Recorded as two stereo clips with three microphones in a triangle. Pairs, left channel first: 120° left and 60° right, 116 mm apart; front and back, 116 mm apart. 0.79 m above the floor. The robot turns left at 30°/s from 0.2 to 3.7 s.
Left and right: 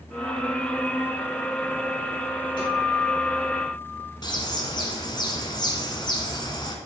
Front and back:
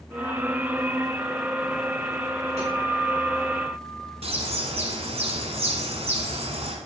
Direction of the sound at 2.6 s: 160° left.